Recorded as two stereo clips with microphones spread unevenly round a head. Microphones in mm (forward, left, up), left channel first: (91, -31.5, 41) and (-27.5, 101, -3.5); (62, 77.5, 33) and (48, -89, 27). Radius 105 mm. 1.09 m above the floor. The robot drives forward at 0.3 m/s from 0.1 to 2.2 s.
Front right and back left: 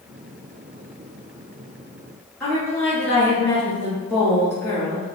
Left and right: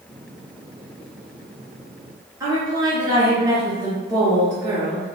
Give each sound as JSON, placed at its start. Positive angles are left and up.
{"t": 2.4, "sound": "a woman speaking", "azimuth_deg": -145, "distance_m": 0.7}